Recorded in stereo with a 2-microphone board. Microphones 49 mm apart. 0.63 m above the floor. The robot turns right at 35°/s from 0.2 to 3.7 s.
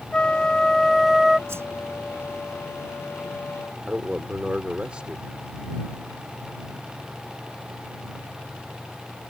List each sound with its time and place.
0.1 s a flute: 145° left; by 1.4 s 170° right
1.5 s a whoosh: 55° right (ahead or behind); by 1.7 s 60° right (ahead or behind)
3.9 s a man speaking: 20° right (ahead or behind)